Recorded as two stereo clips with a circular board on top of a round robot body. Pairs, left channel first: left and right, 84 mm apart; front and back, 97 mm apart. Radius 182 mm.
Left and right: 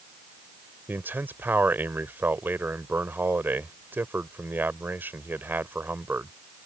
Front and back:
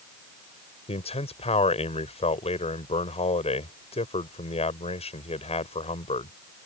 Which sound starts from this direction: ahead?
A man speaking, at 0.9 s.